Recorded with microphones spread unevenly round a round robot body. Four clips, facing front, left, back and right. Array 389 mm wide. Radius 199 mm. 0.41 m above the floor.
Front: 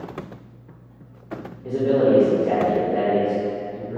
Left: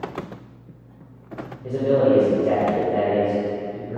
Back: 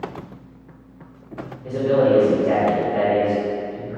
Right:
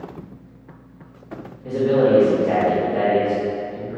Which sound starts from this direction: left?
A man speaking, at 1.6 s.